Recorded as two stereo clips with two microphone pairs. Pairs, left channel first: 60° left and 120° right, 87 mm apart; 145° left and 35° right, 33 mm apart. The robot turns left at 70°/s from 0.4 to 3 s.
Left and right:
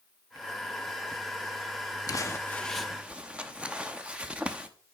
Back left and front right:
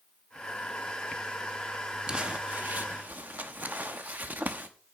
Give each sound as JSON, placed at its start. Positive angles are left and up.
{"t": 2.1, "sound": "crumpling", "azimuth_deg": 20, "distance_m": 0.9}